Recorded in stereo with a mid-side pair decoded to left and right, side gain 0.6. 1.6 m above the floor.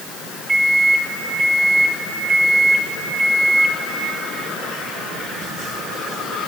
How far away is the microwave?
About 1.8 m.